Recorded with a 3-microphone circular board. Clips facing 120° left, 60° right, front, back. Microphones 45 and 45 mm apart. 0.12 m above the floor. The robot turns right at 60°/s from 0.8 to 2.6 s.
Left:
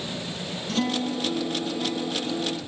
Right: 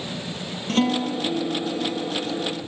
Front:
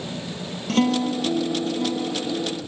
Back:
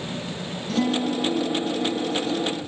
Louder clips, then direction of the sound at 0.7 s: Right 4 dB, front 2 dB; 25° right.